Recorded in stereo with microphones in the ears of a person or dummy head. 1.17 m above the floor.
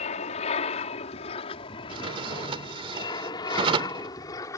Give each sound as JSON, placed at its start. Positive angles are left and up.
{"t": 0.0, "sound": "an aircraft", "side_deg": 40}
{"t": 1.9, "sound": "a drawer", "side_deg": -30}